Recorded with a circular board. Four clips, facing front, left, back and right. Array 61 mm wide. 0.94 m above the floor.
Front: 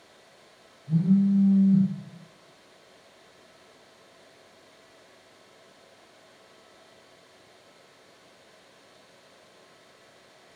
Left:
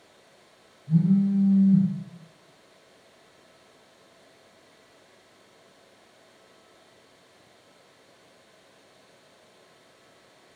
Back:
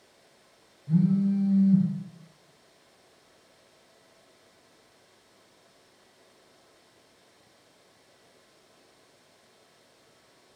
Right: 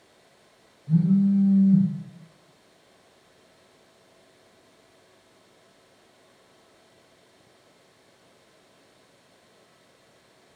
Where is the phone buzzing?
145° right, 1.3 m.